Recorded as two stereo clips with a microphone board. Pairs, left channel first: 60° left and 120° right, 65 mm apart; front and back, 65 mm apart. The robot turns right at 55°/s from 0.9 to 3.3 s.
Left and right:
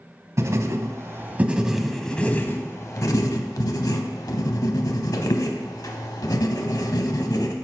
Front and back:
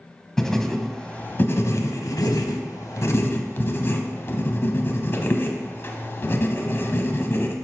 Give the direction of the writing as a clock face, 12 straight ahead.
3 o'clock.